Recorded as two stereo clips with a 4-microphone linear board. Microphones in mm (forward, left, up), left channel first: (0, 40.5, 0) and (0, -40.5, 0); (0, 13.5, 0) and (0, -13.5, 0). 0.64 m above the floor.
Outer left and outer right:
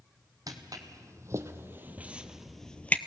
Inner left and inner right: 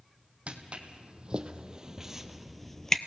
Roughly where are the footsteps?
Right.